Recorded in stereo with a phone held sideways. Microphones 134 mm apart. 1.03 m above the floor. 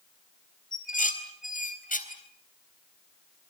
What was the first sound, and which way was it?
Dishes clattering, 85° left.